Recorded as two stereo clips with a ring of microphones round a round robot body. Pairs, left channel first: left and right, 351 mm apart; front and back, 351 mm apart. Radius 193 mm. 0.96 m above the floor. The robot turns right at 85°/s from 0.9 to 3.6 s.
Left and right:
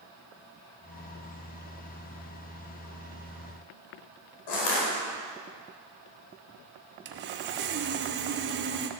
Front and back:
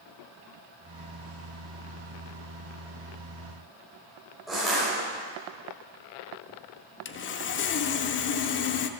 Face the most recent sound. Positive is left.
turn(degrees=-40)